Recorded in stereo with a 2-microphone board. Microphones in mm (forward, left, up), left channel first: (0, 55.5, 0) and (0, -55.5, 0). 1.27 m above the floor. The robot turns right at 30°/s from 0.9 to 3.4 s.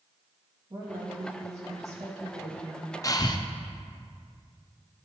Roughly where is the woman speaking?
Behind right.